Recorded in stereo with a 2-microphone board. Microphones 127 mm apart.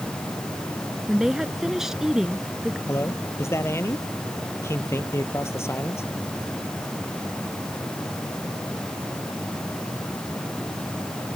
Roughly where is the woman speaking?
Centre.